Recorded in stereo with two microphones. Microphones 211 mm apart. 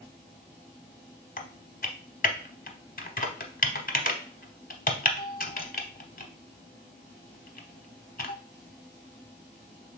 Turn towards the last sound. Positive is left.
turn(degrees=45)  # may be behind; listen again after turning